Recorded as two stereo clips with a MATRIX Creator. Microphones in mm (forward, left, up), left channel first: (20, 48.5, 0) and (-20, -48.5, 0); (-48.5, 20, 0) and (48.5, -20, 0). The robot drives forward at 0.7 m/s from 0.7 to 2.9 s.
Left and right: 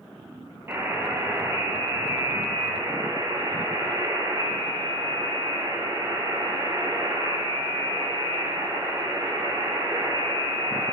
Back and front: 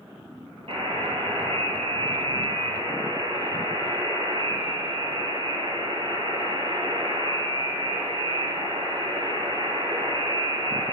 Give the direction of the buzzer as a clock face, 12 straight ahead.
2 o'clock.